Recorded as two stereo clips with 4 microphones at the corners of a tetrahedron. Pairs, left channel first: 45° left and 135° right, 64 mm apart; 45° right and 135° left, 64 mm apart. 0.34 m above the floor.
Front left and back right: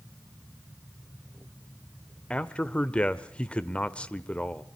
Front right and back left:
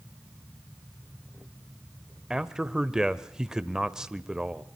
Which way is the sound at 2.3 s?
75° left.